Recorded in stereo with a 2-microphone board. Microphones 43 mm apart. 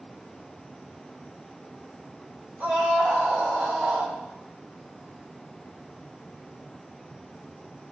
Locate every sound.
2.6 s a scream: 40° right (ahead or behind), 3.5 m; by 4.2 s 45° right (ahead or behind), 4.5 m